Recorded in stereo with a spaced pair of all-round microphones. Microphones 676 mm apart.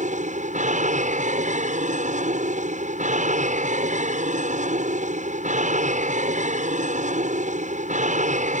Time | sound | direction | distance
0.0 | an aircraft | 10° right (ahead or behind) | ?